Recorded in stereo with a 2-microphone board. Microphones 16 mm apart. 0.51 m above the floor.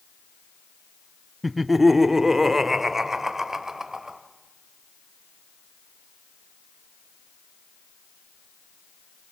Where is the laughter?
5° right (ahead or behind), 0.6 m; by 4.2 s 25° right (ahead or behind), 1.9 m.